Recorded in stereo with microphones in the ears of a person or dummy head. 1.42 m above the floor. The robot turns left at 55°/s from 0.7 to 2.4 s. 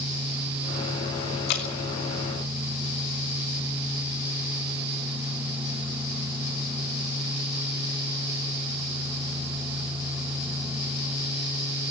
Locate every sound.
1.5 s dripping: 60° left (ahead or behind), 3 m; by 1.7 s 65° left (ahead or behind), 3 m